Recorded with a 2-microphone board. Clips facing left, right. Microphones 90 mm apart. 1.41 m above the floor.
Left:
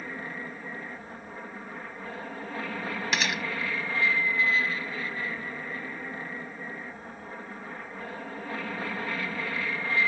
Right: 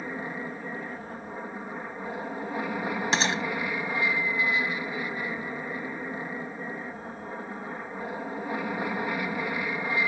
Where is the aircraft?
15° right (ahead or behind).